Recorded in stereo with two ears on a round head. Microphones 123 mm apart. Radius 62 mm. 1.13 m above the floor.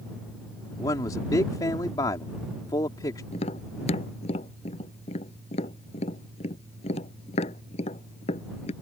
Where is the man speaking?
25° left (ahead or behind).